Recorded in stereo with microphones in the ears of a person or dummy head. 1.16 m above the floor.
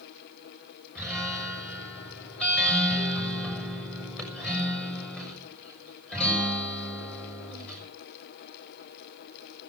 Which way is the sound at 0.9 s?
Centre (ahead or behind).